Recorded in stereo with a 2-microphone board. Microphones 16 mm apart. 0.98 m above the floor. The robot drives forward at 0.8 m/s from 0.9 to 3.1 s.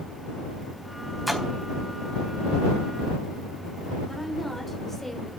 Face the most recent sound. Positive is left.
turn(degrees=10)  # may be behind; listen again after turning